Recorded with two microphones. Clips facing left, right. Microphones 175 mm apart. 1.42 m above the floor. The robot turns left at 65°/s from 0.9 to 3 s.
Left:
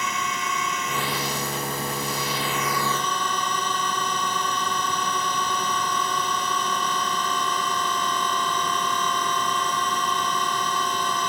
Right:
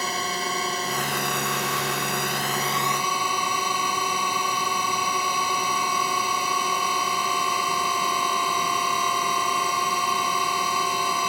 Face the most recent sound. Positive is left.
turn(degrees=-170)